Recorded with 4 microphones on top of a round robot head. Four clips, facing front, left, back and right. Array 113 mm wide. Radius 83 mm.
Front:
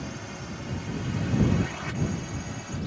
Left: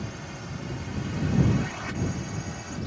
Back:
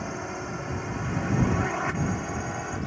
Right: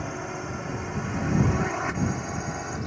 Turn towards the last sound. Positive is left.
turn(degrees=-145)